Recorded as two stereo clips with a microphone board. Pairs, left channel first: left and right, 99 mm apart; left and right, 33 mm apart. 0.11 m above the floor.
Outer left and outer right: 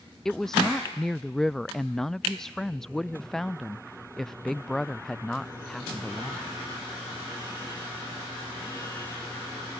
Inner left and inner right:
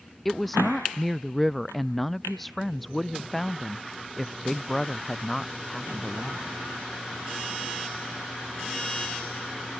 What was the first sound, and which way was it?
A woman speaking, 5° left (ahead or behind).